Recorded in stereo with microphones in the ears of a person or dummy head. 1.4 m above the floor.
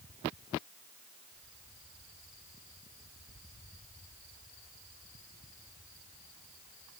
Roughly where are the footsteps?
I don't hear footsteps.